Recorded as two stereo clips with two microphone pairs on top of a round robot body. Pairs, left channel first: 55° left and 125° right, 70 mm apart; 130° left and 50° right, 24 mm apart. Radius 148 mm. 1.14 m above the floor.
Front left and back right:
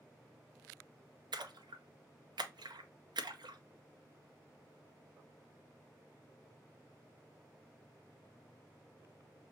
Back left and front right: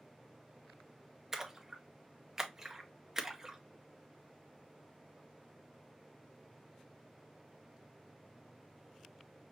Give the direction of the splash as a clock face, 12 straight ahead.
4 o'clock.